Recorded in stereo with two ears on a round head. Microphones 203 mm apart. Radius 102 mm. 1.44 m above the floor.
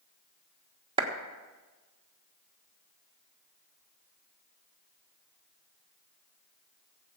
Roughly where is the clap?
Right.